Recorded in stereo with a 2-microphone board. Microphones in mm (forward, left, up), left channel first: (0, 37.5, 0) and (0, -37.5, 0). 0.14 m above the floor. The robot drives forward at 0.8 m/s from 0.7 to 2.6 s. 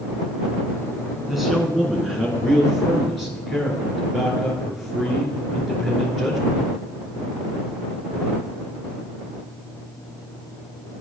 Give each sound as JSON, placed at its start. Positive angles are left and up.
{"t": 1.3, "sound": "a man speaking", "side_deg": 0, "distance_m": 1.3}